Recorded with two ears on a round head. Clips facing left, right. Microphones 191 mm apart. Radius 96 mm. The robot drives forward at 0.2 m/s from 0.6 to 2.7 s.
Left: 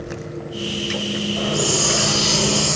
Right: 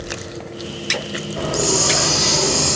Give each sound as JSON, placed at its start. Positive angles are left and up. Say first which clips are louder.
{"t": 1.4, "sound": "a hiss", "louder": "right 4 dB", "side_deg": -55, "distance_m": 1.6}